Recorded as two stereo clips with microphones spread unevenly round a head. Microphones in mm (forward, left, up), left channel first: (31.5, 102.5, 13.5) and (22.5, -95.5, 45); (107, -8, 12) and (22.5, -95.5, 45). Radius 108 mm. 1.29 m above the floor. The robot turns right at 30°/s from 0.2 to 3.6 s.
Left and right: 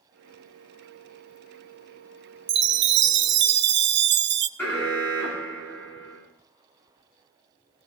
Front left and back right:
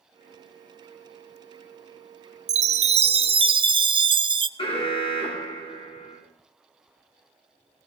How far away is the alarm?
About 5.5 m.